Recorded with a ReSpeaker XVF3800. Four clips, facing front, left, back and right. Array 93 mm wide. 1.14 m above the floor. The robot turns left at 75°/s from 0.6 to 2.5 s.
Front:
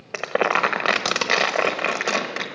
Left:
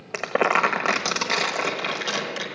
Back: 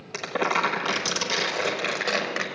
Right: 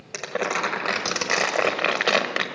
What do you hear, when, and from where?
0.1 s crumpling: 40° left, 1.3 m; by 2.4 s 100° right, 1.3 m